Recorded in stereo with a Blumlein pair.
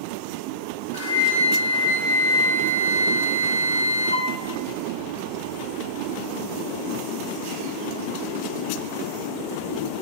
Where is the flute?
70° left, 0.6 m.